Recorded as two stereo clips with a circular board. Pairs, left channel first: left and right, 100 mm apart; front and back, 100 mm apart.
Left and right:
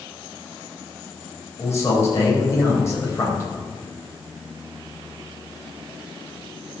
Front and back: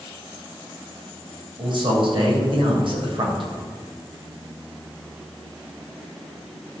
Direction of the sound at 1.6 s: 150° left.